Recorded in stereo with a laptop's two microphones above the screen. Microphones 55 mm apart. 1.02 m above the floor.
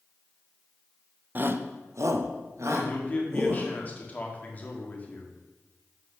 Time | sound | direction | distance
1.4 | a shout | 35° right (ahead or behind) | 0.6 m
2.7 | a man speaking | 30° left (ahead or behind) | 2.0 m